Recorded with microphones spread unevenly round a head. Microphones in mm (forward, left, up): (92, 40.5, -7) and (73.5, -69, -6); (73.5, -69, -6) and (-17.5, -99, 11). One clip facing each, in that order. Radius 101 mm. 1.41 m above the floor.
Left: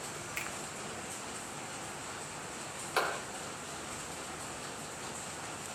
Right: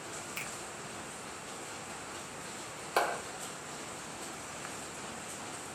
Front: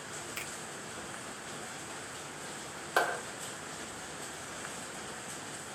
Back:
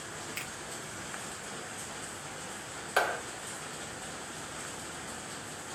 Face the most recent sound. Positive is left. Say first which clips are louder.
# right 3 dB, back 1 dB
turn(degrees=-45)